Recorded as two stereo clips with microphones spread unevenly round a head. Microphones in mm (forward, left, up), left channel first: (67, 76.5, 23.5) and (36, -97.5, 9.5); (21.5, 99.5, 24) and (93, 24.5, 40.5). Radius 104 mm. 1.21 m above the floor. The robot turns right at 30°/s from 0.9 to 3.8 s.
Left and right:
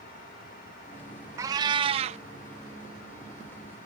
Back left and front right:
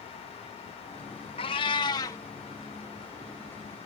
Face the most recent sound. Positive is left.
turn(degrees=-105)